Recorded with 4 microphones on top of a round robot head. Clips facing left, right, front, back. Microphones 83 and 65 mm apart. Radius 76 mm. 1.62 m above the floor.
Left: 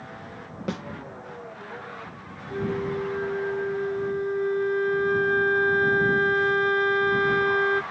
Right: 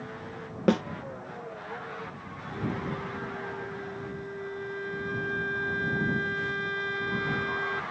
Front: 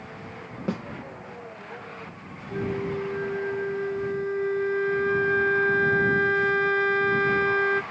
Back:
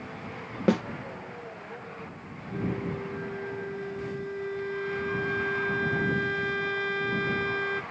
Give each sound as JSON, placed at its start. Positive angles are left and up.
{"t": 0.7, "sound": "a snare drum", "azimuth_deg": -140}
{"t": 2.5, "sound": "a flute", "azimuth_deg": 55}